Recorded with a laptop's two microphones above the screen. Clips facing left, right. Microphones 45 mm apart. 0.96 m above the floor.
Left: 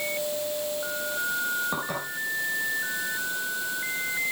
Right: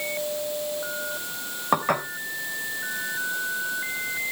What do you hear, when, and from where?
1.7 s dishes clattering: 65° right (ahead or behind), 3.5 m